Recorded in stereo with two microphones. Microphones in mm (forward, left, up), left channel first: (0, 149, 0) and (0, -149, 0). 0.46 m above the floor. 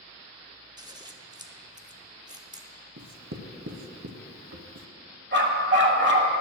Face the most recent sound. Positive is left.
turn(degrees=-40)  # may be behind; listen again after turning